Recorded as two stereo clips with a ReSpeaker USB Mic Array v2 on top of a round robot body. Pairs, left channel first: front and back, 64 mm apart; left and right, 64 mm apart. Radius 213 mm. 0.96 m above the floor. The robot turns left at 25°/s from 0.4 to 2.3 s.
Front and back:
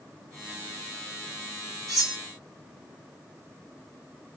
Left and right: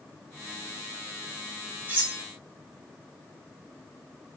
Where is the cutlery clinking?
30° right, 1.5 m; by 2.2 s 40° right, 1.5 m.